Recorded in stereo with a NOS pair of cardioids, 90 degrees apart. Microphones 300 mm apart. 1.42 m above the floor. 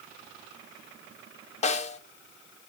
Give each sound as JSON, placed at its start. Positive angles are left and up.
{"t": 1.6, "sound": "a snare drum", "azimuth_deg": 20, "distance_m": 0.9}